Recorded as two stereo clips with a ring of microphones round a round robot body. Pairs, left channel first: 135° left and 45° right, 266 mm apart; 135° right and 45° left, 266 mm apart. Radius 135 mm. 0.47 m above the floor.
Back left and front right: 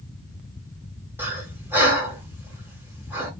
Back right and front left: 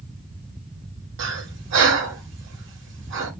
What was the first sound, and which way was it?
Breathing, 35° left.